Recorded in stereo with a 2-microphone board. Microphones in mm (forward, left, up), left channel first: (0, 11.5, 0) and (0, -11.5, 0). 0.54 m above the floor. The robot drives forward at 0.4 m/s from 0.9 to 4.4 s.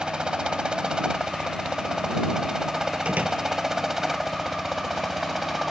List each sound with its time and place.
0.0 s a helicopter: 40° right (ahead or behind); by 5.7 s 10° right (ahead or behind)
3.0 s a door slam: 80° right